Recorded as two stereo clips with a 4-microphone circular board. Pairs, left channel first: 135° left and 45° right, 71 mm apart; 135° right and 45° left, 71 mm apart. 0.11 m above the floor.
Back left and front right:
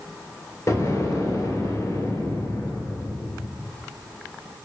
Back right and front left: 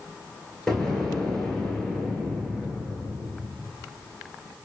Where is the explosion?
145° left, 1.7 m.